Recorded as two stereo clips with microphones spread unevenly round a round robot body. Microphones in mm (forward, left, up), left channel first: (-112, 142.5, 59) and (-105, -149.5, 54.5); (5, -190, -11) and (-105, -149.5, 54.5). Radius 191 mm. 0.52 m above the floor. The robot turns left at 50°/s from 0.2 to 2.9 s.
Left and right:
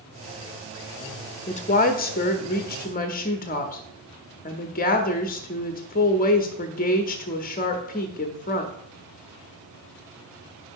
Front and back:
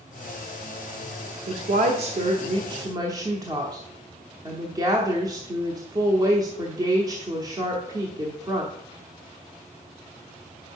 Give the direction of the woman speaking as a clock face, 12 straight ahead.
7 o'clock.